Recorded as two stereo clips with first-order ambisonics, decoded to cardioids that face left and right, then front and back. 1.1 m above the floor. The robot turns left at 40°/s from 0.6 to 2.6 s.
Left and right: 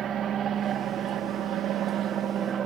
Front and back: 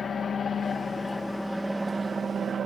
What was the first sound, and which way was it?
An aircraft, 50° right.